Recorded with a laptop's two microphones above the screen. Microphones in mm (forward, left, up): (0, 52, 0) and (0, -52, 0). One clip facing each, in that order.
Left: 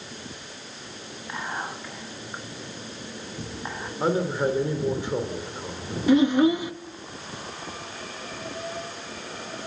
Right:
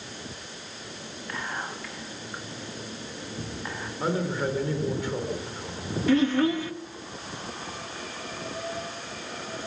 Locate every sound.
1.3 s whispering: 15° left (ahead or behind), 1.5 m
4.0 s a man speaking: 20° left (ahead or behind), 2.5 m
6.1 s a child speaking: 15° left (ahead or behind), 0.8 m